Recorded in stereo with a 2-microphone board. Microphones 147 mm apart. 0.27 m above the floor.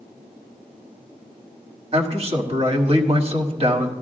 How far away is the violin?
No violin in this recording.